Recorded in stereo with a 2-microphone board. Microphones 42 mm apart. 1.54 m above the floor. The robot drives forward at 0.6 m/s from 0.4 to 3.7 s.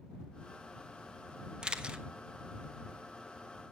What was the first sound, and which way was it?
A camera shutter, 20° right (ahead or behind).